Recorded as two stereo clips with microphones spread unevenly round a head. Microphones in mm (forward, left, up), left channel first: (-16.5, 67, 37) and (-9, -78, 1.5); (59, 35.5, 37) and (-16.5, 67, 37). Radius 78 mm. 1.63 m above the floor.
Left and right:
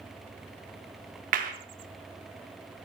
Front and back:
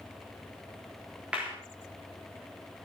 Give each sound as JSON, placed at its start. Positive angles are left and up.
{"t": 1.3, "sound": "a clap", "azimuth_deg": -120, "distance_m": 3.5}